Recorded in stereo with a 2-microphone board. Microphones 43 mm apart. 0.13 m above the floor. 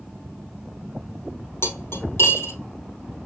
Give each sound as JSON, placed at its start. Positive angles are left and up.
{"t": 1.6, "sound": "cutlery clinking", "side_deg": 70, "distance_m": 2.5}